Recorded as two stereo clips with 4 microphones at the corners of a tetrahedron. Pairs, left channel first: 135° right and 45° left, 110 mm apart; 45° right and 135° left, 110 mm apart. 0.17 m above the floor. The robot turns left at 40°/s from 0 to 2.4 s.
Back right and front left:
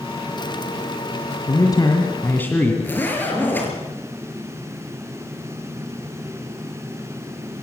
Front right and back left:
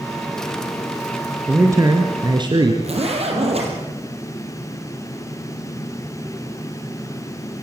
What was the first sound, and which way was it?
A man speaking, 165° right.